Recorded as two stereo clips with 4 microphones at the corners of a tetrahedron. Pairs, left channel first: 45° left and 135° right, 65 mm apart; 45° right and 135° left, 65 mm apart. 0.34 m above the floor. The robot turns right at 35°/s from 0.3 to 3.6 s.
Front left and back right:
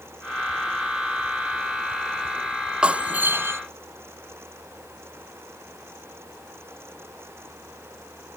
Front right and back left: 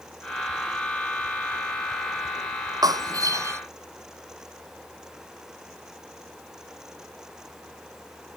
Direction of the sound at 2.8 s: 150° left.